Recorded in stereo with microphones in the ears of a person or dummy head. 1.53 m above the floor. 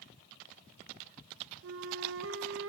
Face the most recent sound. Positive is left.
turn(degrees=-70)  # may be behind; listen again after turning